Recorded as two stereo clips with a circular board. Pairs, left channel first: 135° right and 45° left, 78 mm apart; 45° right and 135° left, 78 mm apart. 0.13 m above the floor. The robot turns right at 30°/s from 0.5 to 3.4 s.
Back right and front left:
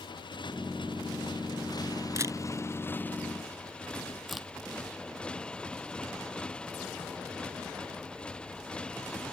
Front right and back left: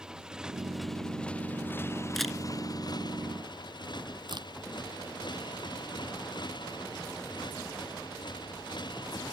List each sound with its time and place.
0.0 s a motorcycle: 145° right; by 9.3 s 60° right
2.2 s a camera shutter: 40° left; by 2.4 s 50° left
4.3 s a crack: 135° left